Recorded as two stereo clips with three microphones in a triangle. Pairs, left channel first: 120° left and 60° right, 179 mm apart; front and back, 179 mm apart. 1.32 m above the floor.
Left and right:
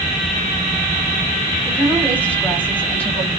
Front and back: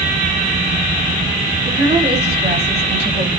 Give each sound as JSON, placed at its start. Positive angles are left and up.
{"t": 1.6, "sound": "a woman speaking", "azimuth_deg": -160, "distance_m": 4.5}